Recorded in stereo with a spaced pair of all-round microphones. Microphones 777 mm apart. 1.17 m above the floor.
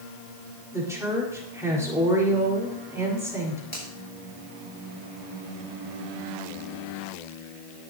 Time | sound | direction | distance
0.7 | a woman speaking | 5° right (ahead or behind) | 4 m
3.7 | a finger snap | 10° right (ahead or behind) | 5 m